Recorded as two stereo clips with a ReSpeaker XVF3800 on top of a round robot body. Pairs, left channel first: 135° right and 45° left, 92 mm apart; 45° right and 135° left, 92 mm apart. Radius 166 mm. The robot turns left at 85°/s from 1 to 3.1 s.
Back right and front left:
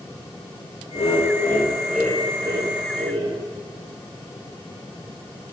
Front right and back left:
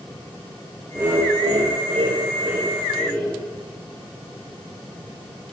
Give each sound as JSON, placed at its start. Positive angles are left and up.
{"t": 0.9, "sound": "laughter", "azimuth_deg": -155, "distance_m": 3.0}